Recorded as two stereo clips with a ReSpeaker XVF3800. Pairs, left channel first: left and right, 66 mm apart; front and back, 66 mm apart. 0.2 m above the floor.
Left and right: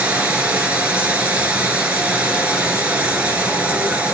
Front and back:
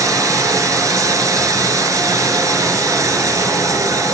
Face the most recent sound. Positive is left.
turn(degrees=-155)